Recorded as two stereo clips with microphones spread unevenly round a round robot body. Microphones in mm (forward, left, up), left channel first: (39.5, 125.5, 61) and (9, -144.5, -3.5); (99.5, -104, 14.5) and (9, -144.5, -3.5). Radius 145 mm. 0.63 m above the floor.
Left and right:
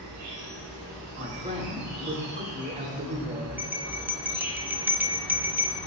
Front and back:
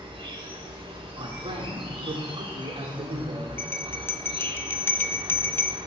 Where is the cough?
I don't hear a cough.